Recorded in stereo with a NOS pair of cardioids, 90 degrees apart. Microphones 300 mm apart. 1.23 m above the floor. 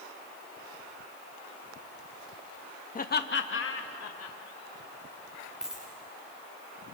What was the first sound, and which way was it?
Laughter, 30° left.